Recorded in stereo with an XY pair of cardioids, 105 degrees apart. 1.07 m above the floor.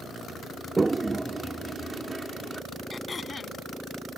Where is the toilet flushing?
20° right.